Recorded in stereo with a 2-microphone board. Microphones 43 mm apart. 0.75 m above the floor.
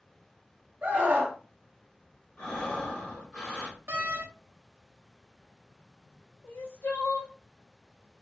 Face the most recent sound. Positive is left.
turn(degrees=65)  # may be behind; listen again after turning